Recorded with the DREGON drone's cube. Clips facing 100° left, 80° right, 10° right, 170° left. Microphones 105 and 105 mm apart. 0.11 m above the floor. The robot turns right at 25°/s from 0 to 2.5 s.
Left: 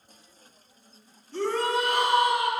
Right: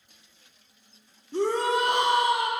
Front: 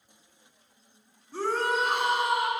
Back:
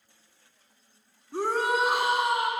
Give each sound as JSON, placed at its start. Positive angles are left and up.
{"t": 1.3, "sound": "a shout", "azimuth_deg": -130, "distance_m": 1.3}